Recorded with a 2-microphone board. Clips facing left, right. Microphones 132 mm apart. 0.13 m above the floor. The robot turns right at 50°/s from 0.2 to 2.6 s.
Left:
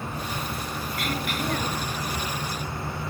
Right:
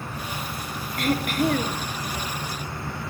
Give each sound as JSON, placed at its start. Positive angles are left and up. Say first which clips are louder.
{"t": 1.0, "sound": "throat clearing", "louder": "right 8 dB", "azimuth_deg": -105, "distance_m": 1.4}